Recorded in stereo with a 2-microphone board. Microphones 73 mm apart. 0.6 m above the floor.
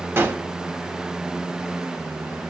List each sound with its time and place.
0.2 s a gunshot: 30° right (ahead or behind), 0.8 m